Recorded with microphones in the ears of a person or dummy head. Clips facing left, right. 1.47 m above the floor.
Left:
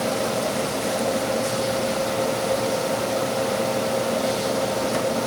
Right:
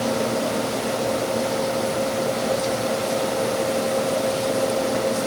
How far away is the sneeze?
I don't hear a sneeze.